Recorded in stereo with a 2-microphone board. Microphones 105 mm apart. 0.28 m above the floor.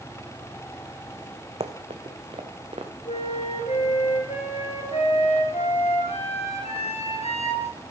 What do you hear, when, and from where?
1.6 s running footsteps: 65° right (ahead or behind), 1.1 m
3.0 s a flute: 75° left (ahead or behind), 3 m